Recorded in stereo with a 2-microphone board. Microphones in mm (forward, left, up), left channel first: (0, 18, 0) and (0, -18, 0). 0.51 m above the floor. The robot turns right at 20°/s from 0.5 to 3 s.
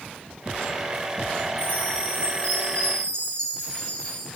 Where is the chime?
55° left (ahead or behind), 2.5 m; by 4.2 s 30° left (ahead or behind), 2.5 m.